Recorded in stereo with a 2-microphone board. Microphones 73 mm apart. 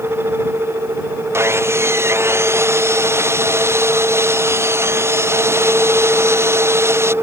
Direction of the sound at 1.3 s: 35° right (ahead or behind).